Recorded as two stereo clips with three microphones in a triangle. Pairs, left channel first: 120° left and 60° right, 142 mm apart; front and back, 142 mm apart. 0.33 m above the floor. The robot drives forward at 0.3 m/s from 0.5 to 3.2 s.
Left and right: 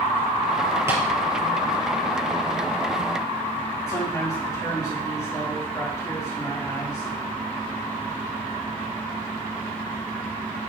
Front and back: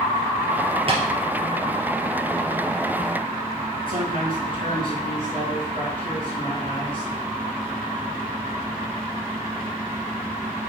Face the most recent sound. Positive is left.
turn(degrees=-175)